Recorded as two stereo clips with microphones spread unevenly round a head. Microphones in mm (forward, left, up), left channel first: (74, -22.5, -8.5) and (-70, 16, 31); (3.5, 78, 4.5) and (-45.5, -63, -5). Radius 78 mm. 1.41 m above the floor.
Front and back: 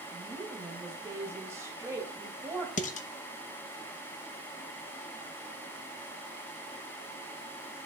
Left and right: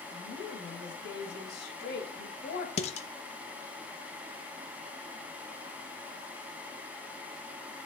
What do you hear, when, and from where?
0.1 s a woman speaking: 85° left, 2.5 m
2.8 s dishes clattering: 30° left, 0.9 m